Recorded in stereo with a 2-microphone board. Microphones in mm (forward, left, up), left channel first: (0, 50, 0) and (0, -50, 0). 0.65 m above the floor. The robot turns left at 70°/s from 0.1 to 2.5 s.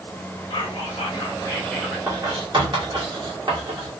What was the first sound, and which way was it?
Whispering, 100° left.